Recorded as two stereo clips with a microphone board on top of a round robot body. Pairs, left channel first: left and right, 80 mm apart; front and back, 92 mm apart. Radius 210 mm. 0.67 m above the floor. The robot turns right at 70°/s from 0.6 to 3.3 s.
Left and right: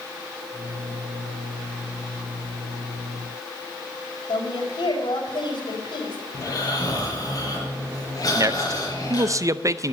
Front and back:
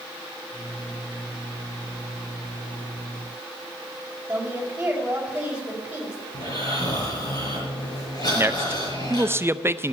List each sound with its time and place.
4.3 s a woman speaking: 105° left, 5 m
6.3 s snoring: 45° left, 6 m
8.3 s a man speaking: 125° right, 0.8 m